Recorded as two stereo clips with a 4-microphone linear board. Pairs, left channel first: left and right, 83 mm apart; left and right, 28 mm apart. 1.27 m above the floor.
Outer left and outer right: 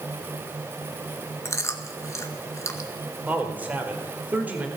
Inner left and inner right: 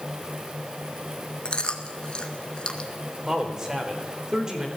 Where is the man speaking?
20° right (ahead or behind), 4 m.